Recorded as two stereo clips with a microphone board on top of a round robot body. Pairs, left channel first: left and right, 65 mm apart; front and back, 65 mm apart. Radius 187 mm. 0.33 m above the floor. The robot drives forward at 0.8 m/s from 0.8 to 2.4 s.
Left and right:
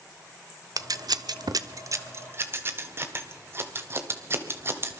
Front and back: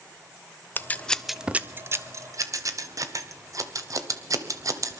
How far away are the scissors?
About 0.8 m.